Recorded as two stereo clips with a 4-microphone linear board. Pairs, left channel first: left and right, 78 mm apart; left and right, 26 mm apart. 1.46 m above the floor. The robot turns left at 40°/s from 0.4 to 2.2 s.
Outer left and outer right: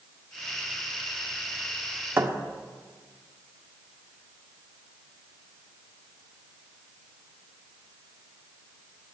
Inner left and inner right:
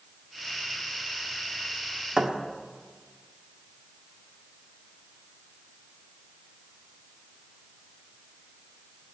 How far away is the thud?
About 1.2 m.